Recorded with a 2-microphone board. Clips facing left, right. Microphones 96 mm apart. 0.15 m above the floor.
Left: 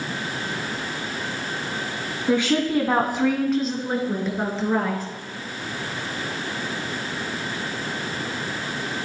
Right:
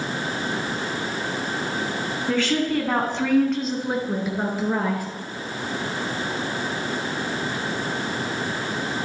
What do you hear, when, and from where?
2.3 s a woman speaking: 20° left (ahead or behind), 1.3 m; by 5.0 s 10° right (ahead or behind), 2.5 m